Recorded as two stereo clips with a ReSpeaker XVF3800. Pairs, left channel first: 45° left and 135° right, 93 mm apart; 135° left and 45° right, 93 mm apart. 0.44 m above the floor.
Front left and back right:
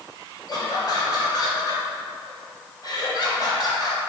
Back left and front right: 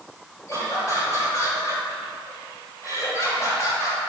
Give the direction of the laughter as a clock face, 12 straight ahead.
9 o'clock.